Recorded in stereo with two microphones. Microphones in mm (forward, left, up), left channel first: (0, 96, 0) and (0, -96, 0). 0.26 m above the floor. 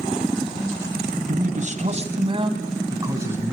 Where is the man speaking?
45° right (ahead or behind), 2.5 m; by 3.5 s 10° right (ahead or behind), 3 m.